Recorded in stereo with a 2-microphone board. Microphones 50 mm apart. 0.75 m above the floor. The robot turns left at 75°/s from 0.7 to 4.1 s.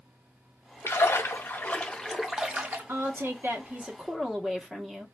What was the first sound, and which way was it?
A splash, 100° left.